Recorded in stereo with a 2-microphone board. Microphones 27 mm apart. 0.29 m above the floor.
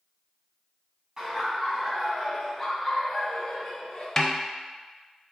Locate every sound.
1.2 s laughter: 25° right (ahead or behind), 1.8 m; by 4.1 s 45° left (ahead or behind), 1.6 m
4.2 s a snare drum: 20° left (ahead or behind), 0.5 m